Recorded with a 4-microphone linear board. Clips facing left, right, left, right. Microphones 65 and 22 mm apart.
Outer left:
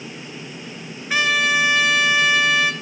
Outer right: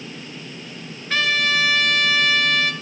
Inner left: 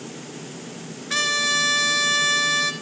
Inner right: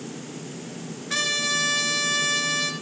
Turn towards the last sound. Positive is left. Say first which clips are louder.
# outer left 2 dB, inner left 3 dB
turn(degrees=10)  # may be behind; listen again after turning